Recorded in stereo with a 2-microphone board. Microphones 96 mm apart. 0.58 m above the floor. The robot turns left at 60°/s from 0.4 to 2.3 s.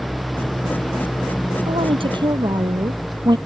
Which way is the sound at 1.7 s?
95° right.